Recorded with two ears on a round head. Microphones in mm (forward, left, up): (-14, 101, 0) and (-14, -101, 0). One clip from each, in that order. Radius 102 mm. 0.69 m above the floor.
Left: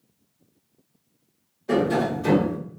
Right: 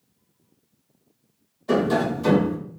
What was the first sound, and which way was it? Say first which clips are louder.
Tapping: right 1 dB; 25° right (ahead or behind).